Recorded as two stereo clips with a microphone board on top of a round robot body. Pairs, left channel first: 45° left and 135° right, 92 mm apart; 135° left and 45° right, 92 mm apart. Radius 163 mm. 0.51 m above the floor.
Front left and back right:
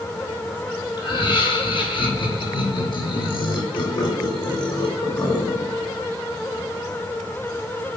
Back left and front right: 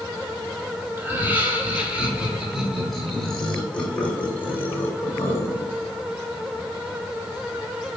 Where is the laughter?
20° left, 3 m; by 5.8 s 80° left, 3.5 m.